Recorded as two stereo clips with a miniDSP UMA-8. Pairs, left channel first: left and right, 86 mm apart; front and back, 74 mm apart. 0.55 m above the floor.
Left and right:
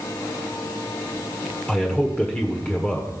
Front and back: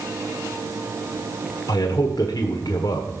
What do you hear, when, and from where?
1.7 s a man speaking: 20° left, 1.3 m